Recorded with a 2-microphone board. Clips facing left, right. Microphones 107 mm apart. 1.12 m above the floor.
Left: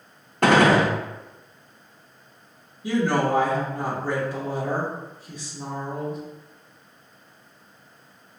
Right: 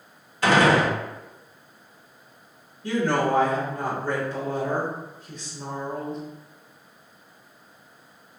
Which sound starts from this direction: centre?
A woman speaking, at 2.8 s.